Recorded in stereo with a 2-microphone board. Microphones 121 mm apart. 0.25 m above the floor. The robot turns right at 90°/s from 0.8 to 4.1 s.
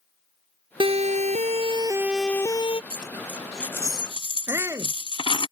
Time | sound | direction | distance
0.8 | a siren | 45° right (ahead or behind) | ?
2.9 | a dropped coin | 45° right (ahead or behind) | ?
4.5 | a shout | 25° right (ahead or behind) | ?